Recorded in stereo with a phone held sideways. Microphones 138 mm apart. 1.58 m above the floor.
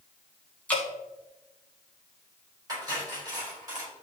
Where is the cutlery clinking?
30° right (ahead or behind), 4.5 m.